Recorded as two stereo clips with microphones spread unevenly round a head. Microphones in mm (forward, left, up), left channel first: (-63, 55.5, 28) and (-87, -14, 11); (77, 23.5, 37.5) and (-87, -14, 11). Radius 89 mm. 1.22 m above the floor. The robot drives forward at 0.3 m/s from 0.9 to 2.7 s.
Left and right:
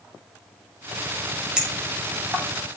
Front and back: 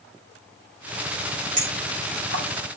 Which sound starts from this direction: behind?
A clink, at 1.6 s.